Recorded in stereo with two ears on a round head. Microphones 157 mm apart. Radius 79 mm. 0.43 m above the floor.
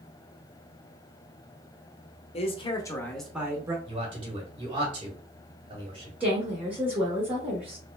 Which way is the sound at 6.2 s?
10° right (ahead or behind).